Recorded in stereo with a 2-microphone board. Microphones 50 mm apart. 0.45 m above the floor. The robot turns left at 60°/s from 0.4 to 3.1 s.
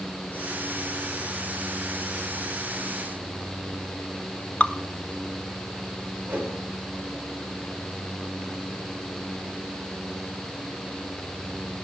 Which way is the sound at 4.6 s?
30° left (ahead or behind).